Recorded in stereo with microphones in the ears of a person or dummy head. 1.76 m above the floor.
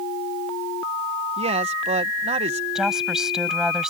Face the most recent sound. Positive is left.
turn(degrees=-5)  # may be behind; listen again after turning